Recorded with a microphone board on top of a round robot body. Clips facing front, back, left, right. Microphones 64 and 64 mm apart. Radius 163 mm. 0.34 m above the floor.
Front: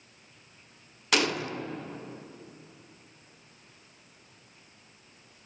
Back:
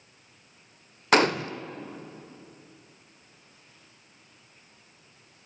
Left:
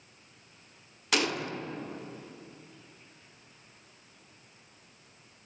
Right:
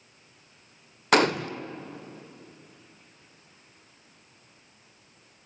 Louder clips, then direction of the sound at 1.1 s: Back 6 dB, right 8 dB; 130° right.